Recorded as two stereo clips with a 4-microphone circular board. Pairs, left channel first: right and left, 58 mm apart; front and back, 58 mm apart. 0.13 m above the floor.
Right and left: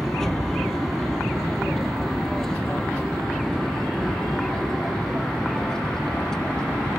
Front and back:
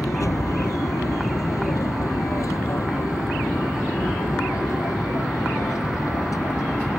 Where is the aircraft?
10° right.